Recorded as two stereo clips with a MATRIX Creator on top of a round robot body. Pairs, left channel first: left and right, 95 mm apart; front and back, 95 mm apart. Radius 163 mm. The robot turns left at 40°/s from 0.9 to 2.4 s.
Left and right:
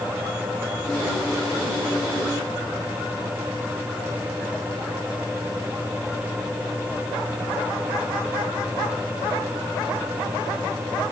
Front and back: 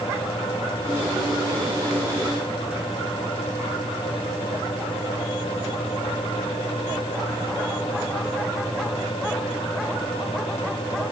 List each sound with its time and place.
Only background noise.